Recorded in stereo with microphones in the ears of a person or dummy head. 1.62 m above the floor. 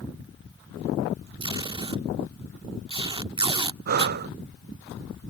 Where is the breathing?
50° right (ahead or behind).